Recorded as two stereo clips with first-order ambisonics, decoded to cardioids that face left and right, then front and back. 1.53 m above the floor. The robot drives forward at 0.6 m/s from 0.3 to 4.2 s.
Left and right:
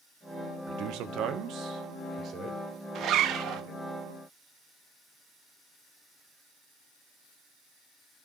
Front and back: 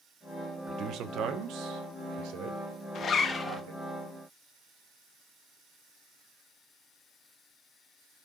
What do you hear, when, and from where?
0.7 s a man speaking: 120° right, 1.1 m; by 3.8 s 160° right, 2.5 m
3.0 s a zipper: 55° right, 0.9 m; by 3.6 s 90° right, 0.8 m